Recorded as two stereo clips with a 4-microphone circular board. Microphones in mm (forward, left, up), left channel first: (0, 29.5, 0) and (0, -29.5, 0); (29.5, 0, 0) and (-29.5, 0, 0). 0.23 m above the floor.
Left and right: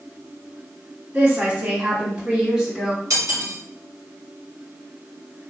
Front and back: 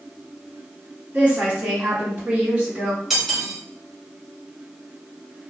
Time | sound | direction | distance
1.1 | a woman speaking | 125° right | 1.9 m
3.1 | cutlery clinking | 95° right | 1.5 m